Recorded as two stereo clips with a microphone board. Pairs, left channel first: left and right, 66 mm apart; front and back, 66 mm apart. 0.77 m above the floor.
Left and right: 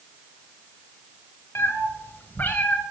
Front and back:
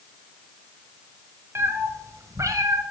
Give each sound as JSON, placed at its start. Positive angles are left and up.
{"t": 1.6, "sound": "a cat meowing", "azimuth_deg": 135, "distance_m": 1.2}